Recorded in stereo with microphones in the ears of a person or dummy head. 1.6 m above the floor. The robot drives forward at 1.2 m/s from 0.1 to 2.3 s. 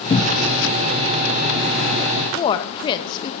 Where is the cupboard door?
25° left (ahead or behind), 1.3 m; by 0.5 s 15° left (ahead or behind), 1.8 m.